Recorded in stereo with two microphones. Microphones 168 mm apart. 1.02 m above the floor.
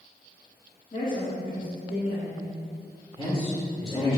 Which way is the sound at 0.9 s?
50° left (ahead or behind).